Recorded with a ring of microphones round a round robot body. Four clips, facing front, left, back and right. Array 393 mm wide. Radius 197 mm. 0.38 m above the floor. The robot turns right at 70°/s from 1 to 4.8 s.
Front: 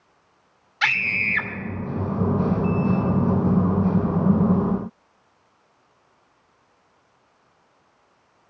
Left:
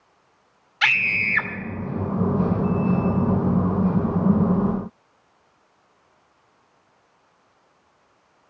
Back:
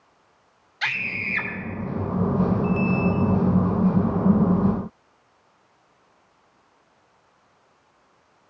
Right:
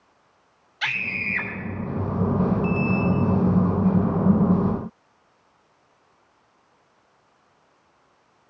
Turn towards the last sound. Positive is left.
turn(degrees=-45)